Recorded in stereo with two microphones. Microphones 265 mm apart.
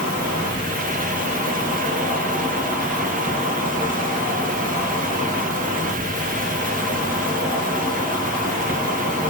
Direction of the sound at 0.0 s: 30° left (ahead or behind).